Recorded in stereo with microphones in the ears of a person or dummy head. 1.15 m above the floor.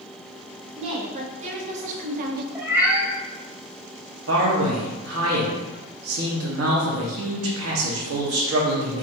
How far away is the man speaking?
About 1.3 m.